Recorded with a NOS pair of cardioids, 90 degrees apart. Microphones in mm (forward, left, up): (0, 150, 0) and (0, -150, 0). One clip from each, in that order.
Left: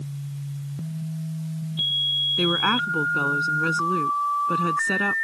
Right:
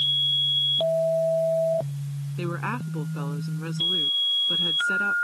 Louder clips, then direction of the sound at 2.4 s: Left 10 dB; 55° left.